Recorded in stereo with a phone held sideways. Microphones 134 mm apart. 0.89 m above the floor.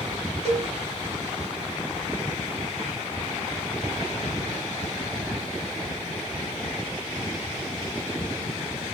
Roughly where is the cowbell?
Right.